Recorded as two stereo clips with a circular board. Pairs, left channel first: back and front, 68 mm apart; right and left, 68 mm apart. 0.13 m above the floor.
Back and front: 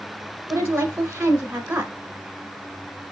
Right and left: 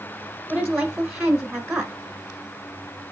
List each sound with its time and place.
0.5 s a woman speaking: 50° left, 1.2 m